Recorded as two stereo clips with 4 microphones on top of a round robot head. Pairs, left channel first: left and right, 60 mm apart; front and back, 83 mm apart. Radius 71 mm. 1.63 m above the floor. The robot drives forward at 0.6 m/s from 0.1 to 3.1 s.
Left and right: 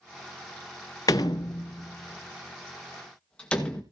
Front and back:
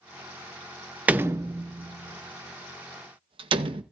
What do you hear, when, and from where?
1.1 s a door slam: 120° left, 0.5 m; by 3.8 s 170° left, 1.4 m